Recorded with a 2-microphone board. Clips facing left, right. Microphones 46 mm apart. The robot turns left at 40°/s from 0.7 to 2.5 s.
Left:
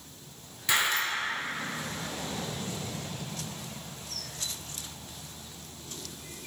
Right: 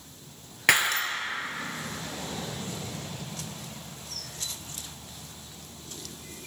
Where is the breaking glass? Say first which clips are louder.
Right 4 dB; 80° right, 0.5 m; by 1.0 s 65° right (ahead or behind), 0.5 m.